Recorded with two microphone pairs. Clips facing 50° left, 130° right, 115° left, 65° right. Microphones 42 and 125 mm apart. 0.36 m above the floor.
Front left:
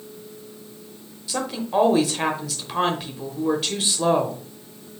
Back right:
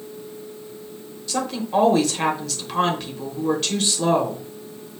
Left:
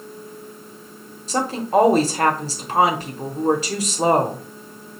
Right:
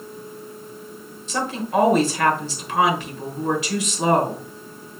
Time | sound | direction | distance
1.3 | a woman speaking | 125° left | 1.0 m